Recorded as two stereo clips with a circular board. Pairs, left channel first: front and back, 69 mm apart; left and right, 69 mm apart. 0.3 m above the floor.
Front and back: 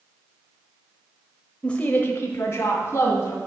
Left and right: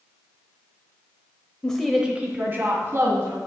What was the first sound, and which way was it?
A woman speaking, 40° left.